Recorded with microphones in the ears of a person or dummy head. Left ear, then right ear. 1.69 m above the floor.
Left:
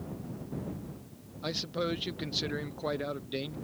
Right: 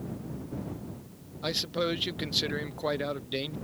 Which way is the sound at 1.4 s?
15° right (ahead or behind).